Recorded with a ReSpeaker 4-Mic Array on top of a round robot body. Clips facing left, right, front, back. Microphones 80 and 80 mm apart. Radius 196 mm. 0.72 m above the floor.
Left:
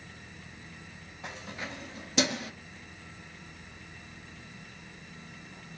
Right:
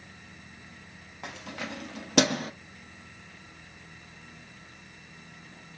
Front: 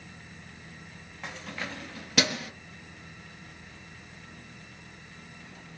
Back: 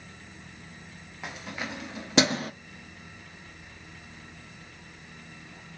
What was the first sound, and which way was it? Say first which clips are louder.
Keys jangling: right 2 dB, back 1 dB; 100° right.